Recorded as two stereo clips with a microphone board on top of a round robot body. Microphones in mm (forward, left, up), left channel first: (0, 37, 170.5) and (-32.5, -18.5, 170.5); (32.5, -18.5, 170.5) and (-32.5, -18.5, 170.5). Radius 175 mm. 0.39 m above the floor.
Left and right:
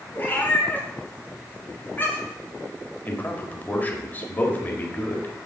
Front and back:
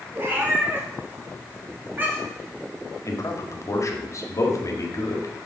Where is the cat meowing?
120° left, 1.3 m.